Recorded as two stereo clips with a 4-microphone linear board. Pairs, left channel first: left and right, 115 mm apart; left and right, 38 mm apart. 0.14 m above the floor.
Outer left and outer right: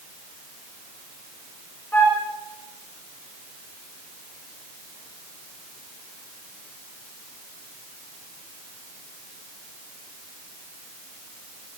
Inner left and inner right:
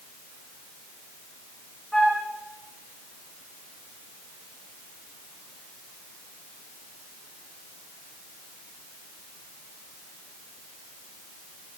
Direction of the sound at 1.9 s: 15° left (ahead or behind).